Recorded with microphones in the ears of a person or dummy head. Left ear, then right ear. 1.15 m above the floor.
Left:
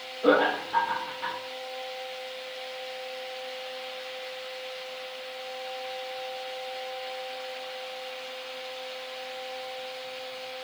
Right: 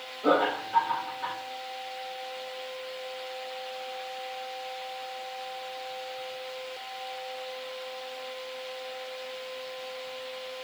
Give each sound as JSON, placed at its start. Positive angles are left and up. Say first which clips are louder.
{"t": 0.2, "sound": "laughter", "louder": "left 2 dB", "side_deg": 35, "distance_m": 0.9}